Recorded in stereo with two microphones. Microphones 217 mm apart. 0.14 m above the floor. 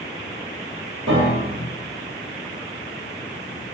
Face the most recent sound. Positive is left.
turn(degrees=-65)  # may be behind; listen again after turning